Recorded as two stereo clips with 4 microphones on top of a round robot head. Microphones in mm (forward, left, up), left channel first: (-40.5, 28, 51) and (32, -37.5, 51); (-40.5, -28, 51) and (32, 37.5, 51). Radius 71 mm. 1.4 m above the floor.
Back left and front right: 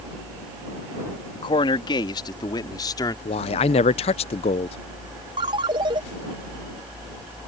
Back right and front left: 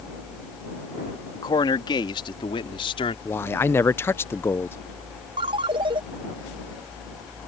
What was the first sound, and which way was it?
A man speaking, 175° left.